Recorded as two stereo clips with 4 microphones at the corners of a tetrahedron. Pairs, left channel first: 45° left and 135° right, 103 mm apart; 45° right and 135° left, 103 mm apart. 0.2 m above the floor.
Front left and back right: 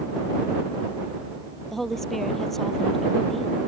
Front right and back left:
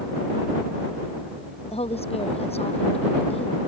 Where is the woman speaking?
40° right.